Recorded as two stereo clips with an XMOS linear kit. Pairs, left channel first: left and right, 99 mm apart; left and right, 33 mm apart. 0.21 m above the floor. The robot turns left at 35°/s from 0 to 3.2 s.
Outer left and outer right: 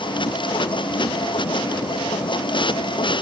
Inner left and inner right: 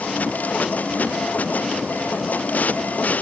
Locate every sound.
Only background noise.